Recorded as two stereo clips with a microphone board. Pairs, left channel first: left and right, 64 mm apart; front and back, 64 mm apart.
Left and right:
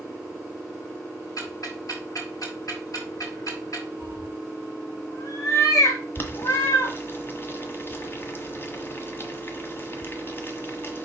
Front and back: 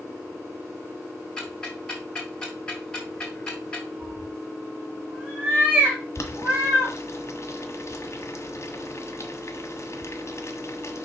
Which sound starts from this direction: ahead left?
Boiling, at 6.2 s.